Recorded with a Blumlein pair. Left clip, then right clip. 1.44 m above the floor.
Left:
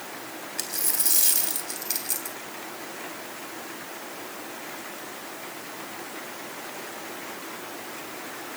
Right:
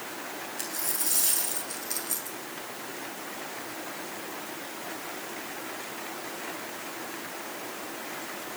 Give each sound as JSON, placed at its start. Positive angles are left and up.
{"t": 0.6, "sound": "a dropped coin", "azimuth_deg": 60, "distance_m": 3.5}